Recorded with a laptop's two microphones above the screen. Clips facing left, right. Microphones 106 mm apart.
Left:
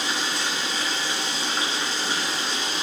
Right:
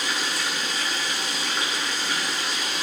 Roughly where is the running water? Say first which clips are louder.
Left 1 dB; left.